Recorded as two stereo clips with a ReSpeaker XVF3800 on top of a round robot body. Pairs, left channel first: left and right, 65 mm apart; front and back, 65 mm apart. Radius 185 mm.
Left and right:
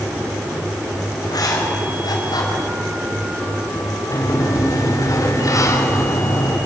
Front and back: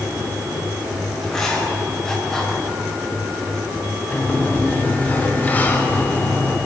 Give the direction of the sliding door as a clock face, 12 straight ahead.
10 o'clock.